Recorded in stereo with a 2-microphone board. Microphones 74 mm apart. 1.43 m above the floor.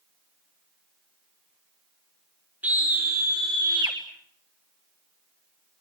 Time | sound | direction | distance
2.6 | a scream | 20° right (ahead or behind) | 1.9 m